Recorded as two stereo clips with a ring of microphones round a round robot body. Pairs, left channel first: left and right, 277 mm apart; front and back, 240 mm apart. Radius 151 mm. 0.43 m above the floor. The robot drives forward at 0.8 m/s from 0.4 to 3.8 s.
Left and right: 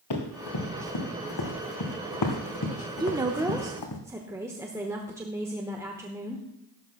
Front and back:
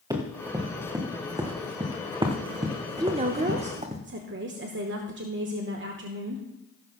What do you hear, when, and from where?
0.1 s running footsteps: 105° left, 3 m; by 4.0 s 115° left, 2.0 m
3.0 s a woman speaking: 135° right, 0.8 m; by 6.5 s 165° right, 1.1 m